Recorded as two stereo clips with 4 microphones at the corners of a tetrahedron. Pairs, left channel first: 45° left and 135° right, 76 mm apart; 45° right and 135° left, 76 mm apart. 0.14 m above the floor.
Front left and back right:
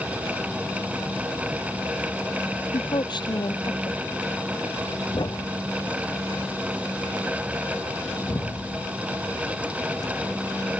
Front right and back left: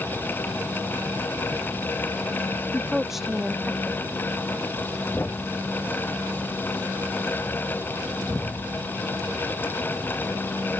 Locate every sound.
2.7 s a woman speaking: 50° left
5.1 s a thud: 15° left